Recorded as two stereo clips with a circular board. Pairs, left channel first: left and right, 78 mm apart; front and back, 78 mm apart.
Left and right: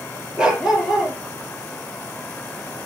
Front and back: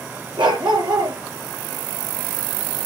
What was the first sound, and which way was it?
A dog barking, 170° right.